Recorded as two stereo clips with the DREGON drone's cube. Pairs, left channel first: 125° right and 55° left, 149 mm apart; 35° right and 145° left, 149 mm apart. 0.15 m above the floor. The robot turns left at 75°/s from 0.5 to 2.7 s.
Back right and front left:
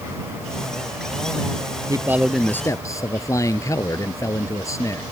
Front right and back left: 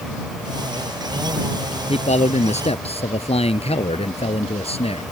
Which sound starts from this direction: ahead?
A man speaking, at 1.9 s.